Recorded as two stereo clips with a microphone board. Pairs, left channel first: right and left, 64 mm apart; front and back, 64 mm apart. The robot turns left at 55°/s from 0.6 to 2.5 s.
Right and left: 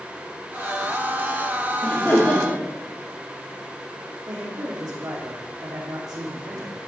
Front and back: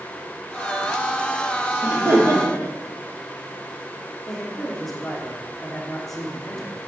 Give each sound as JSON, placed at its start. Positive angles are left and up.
{"t": 1.8, "sound": "laughter", "azimuth_deg": -125, "distance_m": 3.5}
{"t": 4.3, "sound": "a man speaking", "azimuth_deg": 85, "distance_m": 4.0}